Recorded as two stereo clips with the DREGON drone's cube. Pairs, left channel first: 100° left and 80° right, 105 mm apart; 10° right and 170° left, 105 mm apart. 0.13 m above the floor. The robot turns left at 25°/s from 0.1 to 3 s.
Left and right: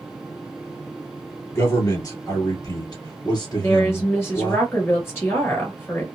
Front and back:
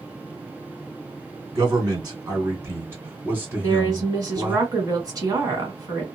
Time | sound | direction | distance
1.6 | a man speaking | 150° left | 2.0 m
3.6 | a woman speaking | 145° left | 1.5 m